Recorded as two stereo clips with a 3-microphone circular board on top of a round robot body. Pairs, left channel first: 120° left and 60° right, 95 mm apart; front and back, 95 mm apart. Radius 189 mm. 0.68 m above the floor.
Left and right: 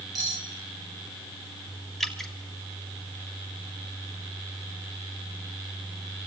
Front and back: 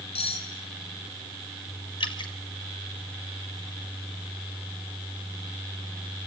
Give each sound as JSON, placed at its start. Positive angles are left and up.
{"t": 0.1, "sound": "cutlery clinking", "azimuth_deg": -15, "distance_m": 4.5}
{"t": 2.0, "sound": "dripping", "azimuth_deg": 30, "distance_m": 3.0}